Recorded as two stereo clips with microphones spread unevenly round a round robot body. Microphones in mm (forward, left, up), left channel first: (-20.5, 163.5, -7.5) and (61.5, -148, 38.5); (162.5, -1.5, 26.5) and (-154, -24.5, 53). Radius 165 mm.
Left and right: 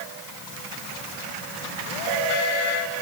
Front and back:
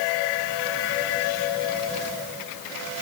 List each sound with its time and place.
Only background noise.